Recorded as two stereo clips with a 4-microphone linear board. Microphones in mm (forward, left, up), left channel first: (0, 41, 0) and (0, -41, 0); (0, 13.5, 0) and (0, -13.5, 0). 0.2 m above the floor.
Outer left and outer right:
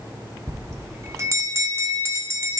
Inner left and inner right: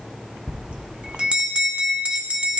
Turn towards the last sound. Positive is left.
turn(degrees=-40)  # may be behind; listen again after turning